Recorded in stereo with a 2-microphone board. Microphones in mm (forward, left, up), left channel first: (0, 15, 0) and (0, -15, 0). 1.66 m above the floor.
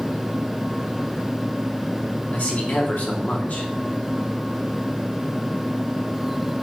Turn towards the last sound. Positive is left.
turn(degrees=65)  # may be behind; listen again after turning